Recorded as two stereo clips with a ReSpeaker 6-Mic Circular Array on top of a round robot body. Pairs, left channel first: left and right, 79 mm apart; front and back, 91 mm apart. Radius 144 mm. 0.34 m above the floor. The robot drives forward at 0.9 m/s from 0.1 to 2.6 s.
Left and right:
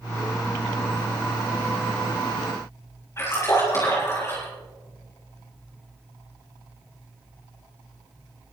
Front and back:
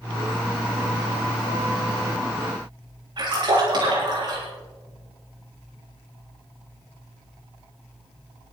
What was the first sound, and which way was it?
A splash, 145° left.